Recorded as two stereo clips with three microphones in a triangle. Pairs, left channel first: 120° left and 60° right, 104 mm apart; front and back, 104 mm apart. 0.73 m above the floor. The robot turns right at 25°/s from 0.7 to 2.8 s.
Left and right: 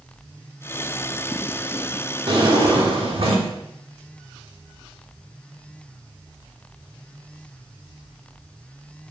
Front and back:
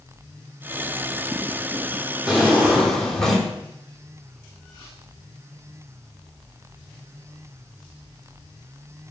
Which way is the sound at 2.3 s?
100° right.